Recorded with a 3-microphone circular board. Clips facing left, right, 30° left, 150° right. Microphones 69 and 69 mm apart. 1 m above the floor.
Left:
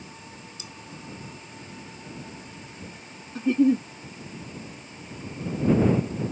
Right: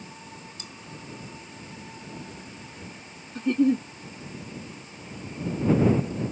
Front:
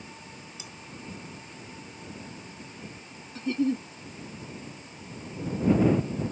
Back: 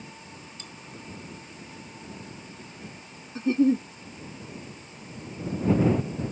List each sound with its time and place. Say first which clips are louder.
0.6 s cutlery clinking: even, even; 50° right
3.4 s a giggle: left 2 dB, back 5 dB; 175° left